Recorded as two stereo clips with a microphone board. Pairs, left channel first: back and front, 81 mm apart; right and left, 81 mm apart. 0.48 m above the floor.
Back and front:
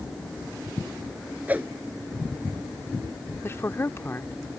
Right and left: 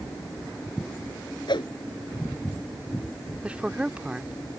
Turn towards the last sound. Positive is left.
turn(degrees=150)